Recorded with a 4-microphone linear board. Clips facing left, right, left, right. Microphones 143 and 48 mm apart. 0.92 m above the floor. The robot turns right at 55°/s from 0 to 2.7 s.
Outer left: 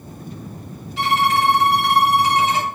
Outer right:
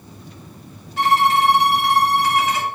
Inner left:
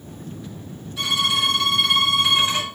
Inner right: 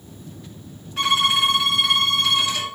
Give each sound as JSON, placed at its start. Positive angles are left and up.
{"t": 1.0, "sound": "a violin", "azimuth_deg": -50, "distance_m": 2.5}